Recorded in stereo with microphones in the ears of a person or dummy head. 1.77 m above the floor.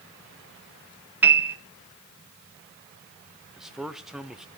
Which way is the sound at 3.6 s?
Centre (ahead or behind).